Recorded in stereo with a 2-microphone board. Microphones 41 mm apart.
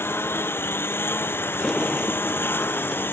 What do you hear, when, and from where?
0.0 s a lawn mower: 75° left (ahead or behind); by 3.1 s 65° left (ahead or behind)
1.6 s a sliding door: 5° left (ahead or behind)